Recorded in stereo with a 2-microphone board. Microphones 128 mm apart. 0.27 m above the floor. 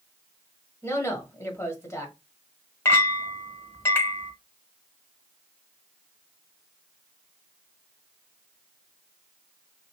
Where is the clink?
20° left (ahead or behind), 1.0 m.